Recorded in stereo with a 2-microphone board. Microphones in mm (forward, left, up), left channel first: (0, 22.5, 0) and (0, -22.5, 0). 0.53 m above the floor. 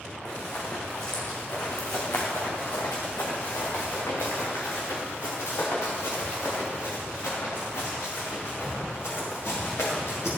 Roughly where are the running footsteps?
Left.